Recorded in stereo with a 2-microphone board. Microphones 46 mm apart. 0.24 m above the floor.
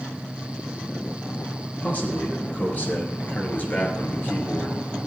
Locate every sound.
1.8 s a man speaking: 40° left (ahead or behind), 5 m